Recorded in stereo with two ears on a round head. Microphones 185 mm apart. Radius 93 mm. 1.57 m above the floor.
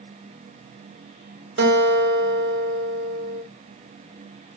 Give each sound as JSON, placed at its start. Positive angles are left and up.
{"t": 1.6, "sound": "a guitar", "side_deg": -55, "distance_m": 1.1}